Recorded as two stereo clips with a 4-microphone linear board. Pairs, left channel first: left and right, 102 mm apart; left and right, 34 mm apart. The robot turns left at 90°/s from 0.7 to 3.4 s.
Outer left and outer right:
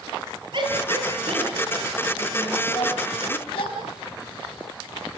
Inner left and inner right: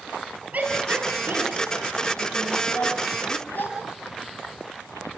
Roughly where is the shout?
Right.